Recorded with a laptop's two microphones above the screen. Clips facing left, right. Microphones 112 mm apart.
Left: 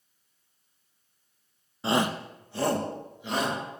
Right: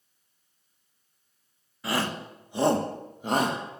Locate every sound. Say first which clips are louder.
1.8 s a shout: left 3 dB; 25° left (ahead or behind), 0.8 m; by 3.6 s 45° right (ahead or behind), 1.5 m